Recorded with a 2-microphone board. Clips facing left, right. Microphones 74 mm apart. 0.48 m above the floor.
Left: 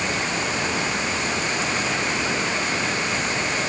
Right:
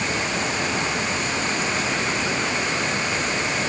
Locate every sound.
Only background noise.